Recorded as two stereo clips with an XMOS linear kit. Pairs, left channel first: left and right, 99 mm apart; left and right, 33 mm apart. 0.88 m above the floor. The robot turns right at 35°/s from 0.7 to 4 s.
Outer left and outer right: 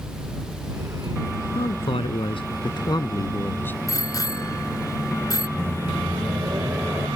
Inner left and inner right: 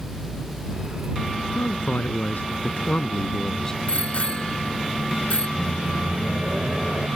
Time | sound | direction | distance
1.6 | a man speaking | 85° left | ?
3.9 | a bicycle bell | 35° left (ahead or behind) | ?
5.6 | a microwave | 30° right (ahead or behind) | ?